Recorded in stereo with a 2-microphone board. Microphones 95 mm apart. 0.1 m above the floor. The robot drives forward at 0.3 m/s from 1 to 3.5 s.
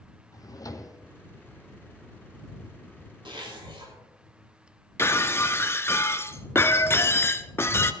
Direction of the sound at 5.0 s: 25° left (ahead or behind).